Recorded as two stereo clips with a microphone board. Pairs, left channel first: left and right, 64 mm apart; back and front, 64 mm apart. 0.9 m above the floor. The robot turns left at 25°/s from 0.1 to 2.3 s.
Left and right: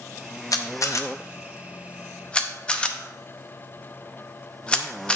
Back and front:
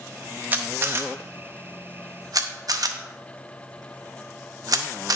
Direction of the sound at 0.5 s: 60° left.